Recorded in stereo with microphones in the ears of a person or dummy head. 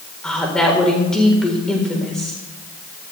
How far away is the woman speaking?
About 4 m.